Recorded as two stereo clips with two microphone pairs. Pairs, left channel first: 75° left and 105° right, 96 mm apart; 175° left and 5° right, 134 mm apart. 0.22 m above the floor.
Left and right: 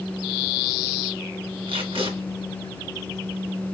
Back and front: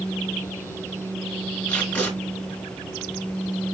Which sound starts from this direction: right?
Tape being pulled, at 1.7 s.